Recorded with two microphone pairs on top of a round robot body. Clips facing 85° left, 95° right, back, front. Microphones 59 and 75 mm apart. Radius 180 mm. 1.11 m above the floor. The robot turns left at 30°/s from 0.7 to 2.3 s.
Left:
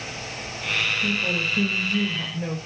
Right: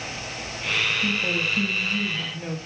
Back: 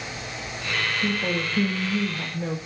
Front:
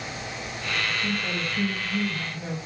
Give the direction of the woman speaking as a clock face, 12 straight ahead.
6 o'clock.